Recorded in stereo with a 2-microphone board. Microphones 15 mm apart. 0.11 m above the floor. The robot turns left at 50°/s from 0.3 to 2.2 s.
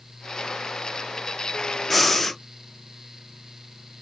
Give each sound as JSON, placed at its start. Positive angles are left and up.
{"t": 1.9, "sound": "breathing", "side_deg": 10, "distance_m": 0.5}